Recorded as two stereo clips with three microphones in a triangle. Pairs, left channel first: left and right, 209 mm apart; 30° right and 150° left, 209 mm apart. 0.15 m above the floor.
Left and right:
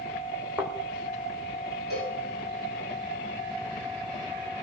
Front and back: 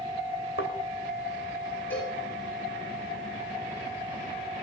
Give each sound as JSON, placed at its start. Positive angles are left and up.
{"t": 0.6, "sound": "a thud", "azimuth_deg": -5, "distance_m": 2.5}
{"t": 1.9, "sound": "a cowbell", "azimuth_deg": 50, "distance_m": 9.5}